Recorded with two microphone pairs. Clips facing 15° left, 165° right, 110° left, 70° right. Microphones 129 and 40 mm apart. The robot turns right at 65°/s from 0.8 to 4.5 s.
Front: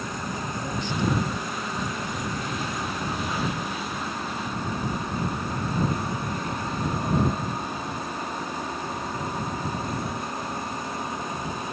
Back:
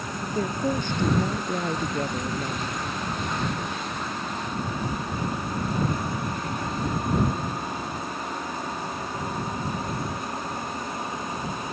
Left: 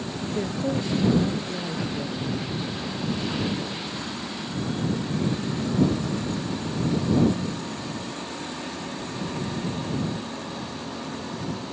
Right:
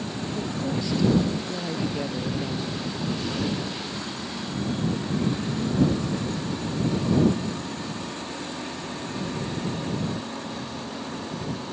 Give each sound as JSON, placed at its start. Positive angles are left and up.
{"t": 0.2, "sound": "a woman speaking", "azimuth_deg": 155}